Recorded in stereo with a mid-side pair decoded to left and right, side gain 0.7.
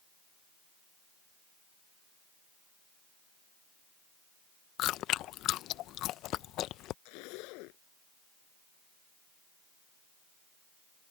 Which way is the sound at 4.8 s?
55° left.